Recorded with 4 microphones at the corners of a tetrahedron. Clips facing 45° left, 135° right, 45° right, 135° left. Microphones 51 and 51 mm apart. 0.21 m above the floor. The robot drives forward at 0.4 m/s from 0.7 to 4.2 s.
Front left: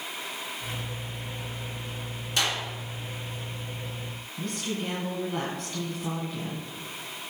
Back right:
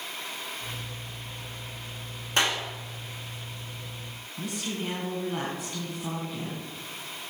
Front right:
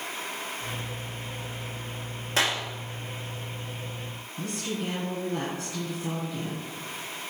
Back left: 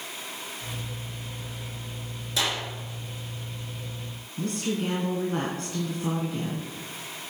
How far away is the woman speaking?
About 2 m.